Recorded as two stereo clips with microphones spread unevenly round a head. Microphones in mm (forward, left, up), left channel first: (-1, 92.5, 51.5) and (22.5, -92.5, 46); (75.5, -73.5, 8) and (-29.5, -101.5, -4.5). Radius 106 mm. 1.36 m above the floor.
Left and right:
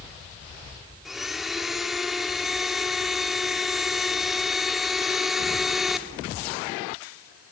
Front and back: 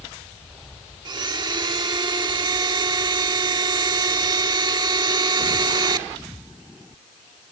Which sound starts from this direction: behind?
A blender, at 1.1 s.